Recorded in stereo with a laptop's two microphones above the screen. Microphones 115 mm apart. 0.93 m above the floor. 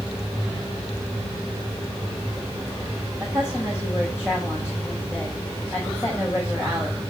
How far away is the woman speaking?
About 4 m.